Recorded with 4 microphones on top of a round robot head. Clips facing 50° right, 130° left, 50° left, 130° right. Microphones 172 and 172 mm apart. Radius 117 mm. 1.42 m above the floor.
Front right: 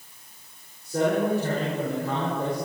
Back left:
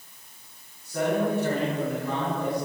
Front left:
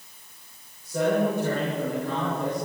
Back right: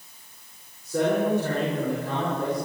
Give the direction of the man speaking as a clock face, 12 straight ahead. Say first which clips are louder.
Front right 2 dB, even; 4 o'clock.